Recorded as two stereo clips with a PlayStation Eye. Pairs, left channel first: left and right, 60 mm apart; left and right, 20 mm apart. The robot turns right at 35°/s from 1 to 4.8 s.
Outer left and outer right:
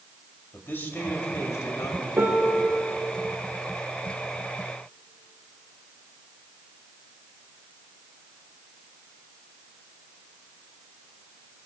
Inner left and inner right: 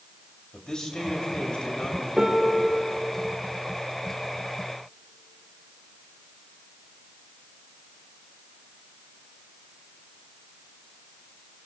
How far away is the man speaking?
About 2.5 m.